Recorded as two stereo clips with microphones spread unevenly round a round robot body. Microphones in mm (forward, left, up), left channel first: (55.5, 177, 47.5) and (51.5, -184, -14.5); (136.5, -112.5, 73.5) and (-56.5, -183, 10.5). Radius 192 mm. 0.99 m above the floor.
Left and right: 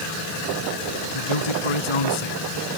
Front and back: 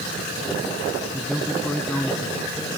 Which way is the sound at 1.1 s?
110° left.